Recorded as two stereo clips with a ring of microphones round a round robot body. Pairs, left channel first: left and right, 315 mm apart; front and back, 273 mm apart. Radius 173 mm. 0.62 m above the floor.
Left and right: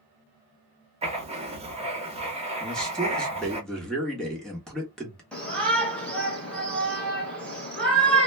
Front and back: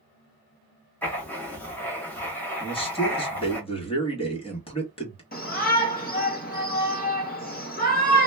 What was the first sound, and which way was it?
Writing, 70° right.